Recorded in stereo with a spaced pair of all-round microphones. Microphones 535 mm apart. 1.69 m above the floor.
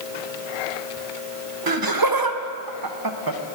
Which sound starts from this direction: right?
Laughter, at 1.7 s.